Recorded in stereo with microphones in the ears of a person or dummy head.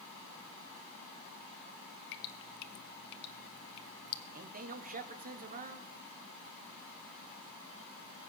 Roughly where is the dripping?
Left.